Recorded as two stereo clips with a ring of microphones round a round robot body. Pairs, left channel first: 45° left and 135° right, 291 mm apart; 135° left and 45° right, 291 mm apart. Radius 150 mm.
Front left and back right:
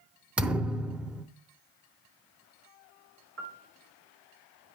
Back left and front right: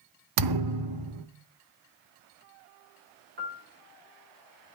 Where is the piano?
95° right, 1.5 m.